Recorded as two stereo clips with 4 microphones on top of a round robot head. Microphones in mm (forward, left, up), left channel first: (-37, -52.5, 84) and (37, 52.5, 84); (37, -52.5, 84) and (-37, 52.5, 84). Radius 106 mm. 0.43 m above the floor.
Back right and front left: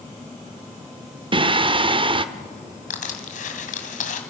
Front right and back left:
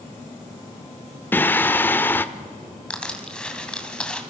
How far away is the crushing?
About 2.5 m.